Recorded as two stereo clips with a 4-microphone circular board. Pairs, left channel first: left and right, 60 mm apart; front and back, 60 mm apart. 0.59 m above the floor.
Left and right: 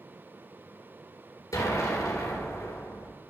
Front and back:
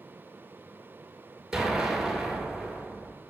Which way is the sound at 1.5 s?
100° left.